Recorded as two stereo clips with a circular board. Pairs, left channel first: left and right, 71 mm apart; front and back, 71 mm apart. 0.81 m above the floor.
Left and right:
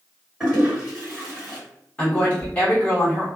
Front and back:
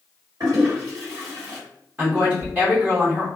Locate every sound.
0.4 s a toilet flushing: 175° right, 1.7 m
2.0 s a woman speaking: 145° left, 1.0 m